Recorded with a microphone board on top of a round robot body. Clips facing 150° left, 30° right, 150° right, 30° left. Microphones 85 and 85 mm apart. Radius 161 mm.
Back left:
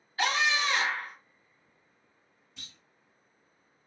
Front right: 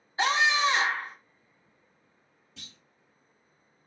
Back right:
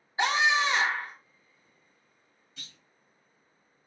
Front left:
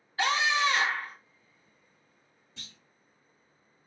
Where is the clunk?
30° right, 0.9 m.